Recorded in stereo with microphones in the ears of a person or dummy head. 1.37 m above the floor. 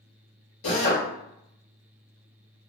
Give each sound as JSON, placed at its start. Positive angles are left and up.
{"t": 0.6, "sound": "a drill", "side_deg": 60, "distance_m": 1.6}